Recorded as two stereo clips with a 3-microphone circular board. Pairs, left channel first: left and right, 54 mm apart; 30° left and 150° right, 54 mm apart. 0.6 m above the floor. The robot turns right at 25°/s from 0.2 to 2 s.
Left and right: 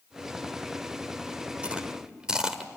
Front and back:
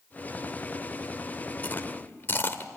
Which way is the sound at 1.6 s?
25° right.